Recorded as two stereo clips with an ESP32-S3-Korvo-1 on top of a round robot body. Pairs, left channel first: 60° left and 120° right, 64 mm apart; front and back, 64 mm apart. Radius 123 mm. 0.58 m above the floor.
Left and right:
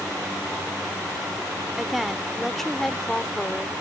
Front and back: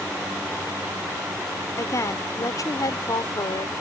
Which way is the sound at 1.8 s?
35° right.